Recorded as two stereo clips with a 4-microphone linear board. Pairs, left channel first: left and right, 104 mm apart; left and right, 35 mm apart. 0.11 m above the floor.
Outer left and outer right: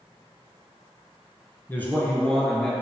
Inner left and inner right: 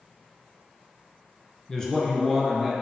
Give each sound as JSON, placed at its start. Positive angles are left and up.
{"t": 1.7, "sound": "a man speaking", "side_deg": 20, "distance_m": 1.2}